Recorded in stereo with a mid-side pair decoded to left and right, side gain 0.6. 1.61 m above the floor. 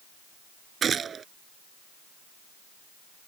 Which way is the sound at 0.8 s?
35° right.